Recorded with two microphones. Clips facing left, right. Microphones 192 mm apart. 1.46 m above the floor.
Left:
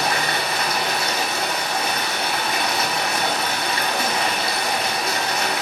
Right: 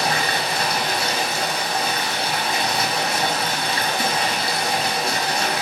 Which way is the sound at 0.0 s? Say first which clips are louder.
Even; 30° right (ahead or behind).